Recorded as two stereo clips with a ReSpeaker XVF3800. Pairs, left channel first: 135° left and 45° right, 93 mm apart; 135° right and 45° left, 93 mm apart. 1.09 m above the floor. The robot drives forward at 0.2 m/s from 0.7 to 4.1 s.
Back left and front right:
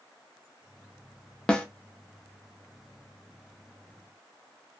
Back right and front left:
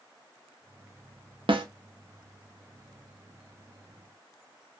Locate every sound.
1.5 s a snare drum: 55° left, 0.6 m; by 1.7 s 60° left, 0.6 m